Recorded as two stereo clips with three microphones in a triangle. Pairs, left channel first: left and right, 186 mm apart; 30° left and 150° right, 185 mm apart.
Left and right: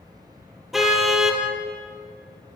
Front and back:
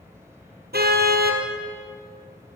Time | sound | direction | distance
0.7 | a car horn | straight behind | 2.5 m